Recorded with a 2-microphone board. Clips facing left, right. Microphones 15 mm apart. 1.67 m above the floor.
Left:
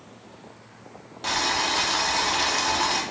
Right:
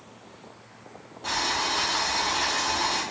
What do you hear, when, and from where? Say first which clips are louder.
1.2 s boiling: left 2 dB; 60° left (ahead or behind), 0.8 m